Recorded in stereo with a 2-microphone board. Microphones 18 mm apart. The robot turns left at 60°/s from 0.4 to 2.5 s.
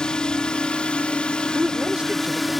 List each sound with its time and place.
0.0 s a drone: 125° left; by 2.6 s straight ahead
1.6 s a woman speaking: 35° right; by 2.5 s 95° right